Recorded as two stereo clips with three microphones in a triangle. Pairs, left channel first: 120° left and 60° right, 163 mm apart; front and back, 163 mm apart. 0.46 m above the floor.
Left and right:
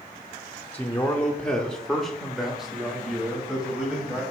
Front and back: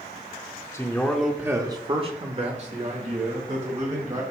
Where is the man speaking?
50° left, 0.8 m; by 4.2 s 145° right, 2.5 m.